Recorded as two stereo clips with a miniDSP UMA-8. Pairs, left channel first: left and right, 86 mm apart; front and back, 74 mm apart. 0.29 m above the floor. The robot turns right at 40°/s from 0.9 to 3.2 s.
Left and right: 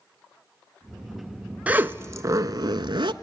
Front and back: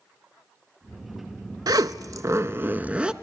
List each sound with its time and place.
1.7 s a zipper: 160° right, 0.6 m; by 3.1 s 105° right, 0.6 m